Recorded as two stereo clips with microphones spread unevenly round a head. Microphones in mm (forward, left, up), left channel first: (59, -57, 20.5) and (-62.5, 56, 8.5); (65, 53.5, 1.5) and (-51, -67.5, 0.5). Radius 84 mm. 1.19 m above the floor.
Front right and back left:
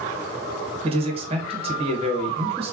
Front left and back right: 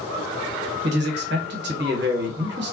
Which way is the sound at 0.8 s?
165° right.